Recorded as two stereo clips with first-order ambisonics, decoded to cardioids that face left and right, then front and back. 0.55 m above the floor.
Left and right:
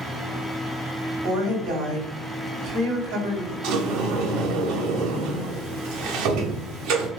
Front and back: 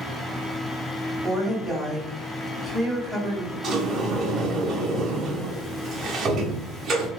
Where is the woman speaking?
85° right, 2.0 m.